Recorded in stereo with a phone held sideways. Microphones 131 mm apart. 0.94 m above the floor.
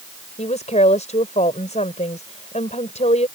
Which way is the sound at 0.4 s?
60° left (ahead or behind).